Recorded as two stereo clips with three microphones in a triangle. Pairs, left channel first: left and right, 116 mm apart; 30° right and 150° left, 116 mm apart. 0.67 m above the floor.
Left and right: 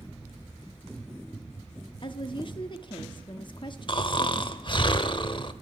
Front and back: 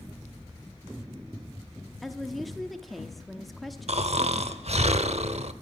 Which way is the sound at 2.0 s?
60° left.